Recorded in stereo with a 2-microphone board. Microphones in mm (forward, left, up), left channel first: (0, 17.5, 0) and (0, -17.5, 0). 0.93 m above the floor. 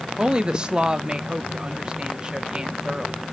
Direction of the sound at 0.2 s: 25° right (ahead or behind).